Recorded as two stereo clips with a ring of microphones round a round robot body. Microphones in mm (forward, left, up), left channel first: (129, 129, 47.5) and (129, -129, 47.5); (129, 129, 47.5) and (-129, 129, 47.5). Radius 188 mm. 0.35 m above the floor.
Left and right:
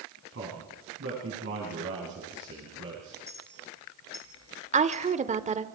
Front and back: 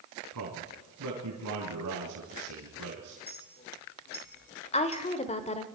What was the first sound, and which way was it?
A man speaking, 145° right.